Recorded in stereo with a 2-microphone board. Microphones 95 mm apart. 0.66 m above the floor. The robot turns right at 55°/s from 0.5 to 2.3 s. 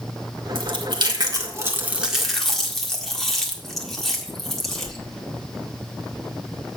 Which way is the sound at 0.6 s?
65° right (ahead or behind).